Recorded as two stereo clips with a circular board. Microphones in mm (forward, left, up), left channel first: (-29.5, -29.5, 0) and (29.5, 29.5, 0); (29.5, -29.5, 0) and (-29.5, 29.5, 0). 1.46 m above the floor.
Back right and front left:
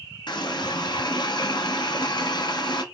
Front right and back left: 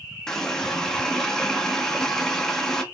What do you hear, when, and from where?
0.3 s a running tap: 130° right, 0.9 m